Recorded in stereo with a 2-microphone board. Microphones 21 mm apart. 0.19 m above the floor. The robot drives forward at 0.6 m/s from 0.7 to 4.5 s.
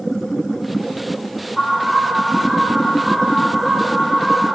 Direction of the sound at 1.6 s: 10° right (ahead or behind).